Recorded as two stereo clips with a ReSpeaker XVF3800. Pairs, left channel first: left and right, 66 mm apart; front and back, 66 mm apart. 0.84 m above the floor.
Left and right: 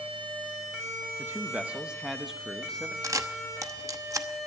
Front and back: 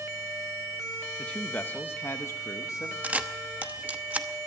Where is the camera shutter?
115° right, 0.9 m.